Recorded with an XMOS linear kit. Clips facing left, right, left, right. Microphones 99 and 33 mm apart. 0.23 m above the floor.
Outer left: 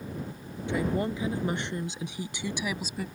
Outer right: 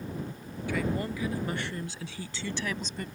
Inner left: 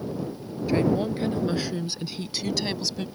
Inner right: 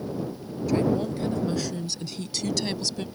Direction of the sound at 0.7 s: 25° left (ahead or behind).